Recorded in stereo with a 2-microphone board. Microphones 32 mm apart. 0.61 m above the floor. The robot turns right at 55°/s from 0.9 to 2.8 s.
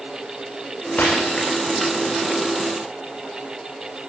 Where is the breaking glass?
70° left (ahead or behind), 8 m; by 1.8 s 30° left (ahead or behind), 8 m.